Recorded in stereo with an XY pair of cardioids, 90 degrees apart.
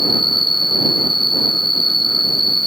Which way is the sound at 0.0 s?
Straight ahead.